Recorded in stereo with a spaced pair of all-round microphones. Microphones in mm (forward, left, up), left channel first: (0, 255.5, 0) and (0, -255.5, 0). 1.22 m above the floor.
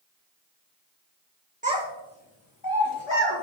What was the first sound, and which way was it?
A child speaking, 15° right (ahead or behind).